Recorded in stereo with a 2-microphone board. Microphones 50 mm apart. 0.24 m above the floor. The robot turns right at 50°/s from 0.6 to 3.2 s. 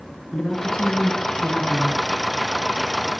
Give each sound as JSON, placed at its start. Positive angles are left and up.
{"t": 0.3, "sound": "a woman speaking", "side_deg": 15, "distance_m": 3.0}